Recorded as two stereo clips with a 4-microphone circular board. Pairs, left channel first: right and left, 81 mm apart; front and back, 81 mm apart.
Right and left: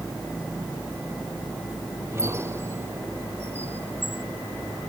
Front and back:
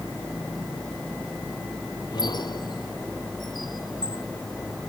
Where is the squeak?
30° left.